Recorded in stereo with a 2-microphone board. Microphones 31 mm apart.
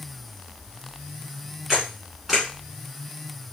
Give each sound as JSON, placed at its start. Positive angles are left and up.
{"t": 1.7, "sound": "a camera shutter", "side_deg": -20, "distance_m": 1.3}